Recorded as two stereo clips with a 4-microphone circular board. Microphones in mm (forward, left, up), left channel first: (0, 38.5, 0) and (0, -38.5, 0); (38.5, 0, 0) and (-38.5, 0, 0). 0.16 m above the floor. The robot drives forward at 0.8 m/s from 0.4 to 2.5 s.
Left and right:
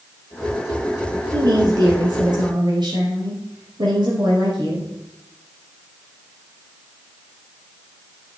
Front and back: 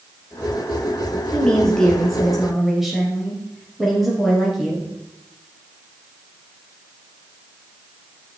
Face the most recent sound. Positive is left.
turn(degrees=-90)